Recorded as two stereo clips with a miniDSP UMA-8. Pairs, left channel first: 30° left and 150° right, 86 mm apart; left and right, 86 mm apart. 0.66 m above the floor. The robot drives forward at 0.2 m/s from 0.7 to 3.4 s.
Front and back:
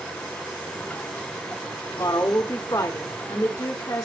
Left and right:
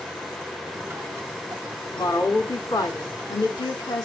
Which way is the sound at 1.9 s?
55° left.